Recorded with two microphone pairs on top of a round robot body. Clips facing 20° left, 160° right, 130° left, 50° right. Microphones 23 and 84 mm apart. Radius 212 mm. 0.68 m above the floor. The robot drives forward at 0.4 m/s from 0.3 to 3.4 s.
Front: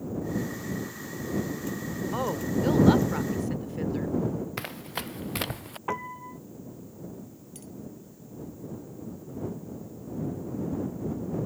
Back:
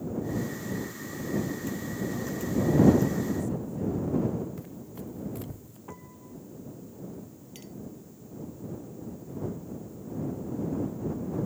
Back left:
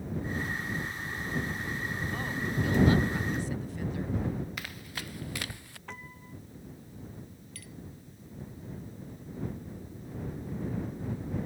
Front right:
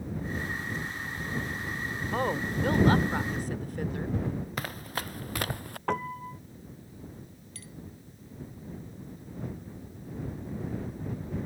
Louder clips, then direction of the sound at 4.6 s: Front 6 dB, front right 6 dB; straight ahead.